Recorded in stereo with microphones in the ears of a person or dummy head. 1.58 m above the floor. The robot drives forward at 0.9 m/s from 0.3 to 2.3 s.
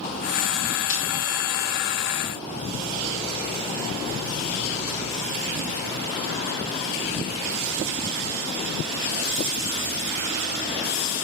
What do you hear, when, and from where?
0.9 s breaking glass: 50° left (ahead or behind), 6 m